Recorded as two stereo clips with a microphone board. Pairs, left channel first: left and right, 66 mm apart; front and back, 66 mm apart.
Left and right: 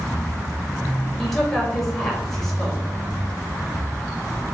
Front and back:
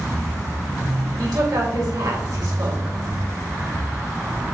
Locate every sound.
1.2 s a woman speaking: 175° left, 3 m